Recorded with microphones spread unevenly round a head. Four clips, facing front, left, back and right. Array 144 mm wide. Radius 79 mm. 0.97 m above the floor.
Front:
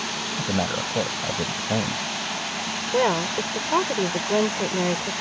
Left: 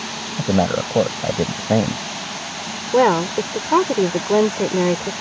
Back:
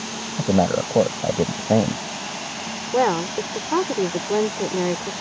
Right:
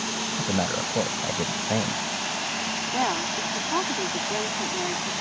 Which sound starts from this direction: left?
A woman speaking, at 2.9 s.